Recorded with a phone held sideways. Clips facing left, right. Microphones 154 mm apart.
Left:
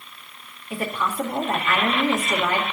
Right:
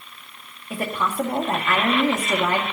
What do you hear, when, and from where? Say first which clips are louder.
0.7 s a woman speaking: right 1 dB; 45° right (ahead or behind), 2.0 m